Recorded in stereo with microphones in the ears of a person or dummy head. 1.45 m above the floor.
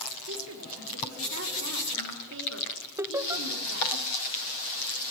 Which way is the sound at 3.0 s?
10° right (ahead or behind).